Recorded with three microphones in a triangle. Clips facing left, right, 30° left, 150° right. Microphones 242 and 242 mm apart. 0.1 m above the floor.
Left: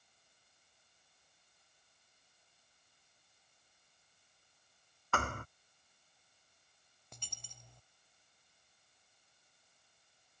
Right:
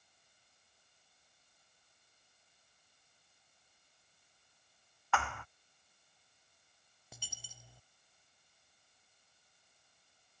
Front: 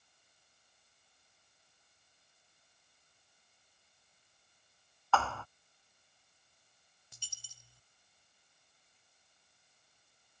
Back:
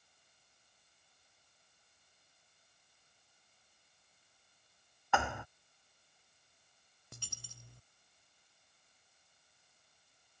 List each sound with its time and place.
5.1 s a thud: 135° left
7.1 s a dropped coin: 175° right